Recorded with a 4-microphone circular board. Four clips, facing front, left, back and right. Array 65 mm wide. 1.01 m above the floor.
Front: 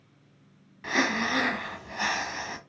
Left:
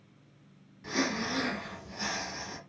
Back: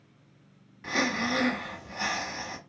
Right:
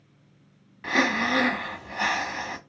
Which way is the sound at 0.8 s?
80° right.